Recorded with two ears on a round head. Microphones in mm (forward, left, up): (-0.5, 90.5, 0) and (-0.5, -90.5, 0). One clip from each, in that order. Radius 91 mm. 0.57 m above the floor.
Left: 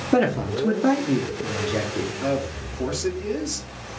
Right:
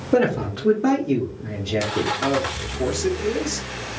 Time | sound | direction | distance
0.1 | a man speaking | 15° left (ahead or behind) | 0.9 m
2.2 | a man speaking | centre (ahead or behind) | 1.0 m